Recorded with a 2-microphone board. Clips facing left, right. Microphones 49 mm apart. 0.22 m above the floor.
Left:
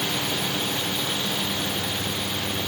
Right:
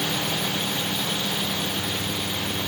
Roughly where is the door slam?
No door slam in this recording.